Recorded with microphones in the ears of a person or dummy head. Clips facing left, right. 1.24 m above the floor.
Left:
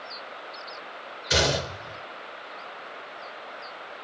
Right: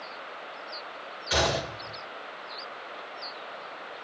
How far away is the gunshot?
About 1.1 m.